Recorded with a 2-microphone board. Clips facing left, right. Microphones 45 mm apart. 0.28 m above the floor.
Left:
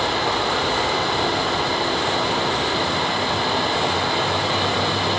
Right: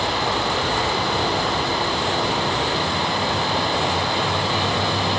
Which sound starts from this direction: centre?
Running water, at 0.0 s.